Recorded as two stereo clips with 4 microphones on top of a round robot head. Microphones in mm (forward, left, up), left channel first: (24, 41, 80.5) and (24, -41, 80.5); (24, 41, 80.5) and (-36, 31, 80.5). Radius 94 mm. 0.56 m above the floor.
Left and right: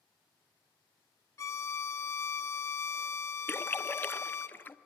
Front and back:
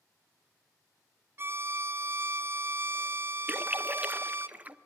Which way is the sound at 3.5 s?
140° left.